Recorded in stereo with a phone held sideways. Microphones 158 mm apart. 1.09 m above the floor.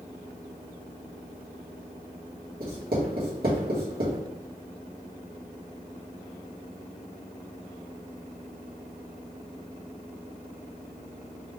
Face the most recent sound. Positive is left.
turn(degrees=-70)  # may be behind; listen again after turning